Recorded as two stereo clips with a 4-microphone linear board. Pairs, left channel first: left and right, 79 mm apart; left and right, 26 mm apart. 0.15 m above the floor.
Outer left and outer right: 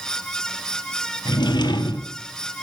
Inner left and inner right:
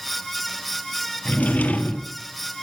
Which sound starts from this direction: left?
A drawer, at 1.2 s.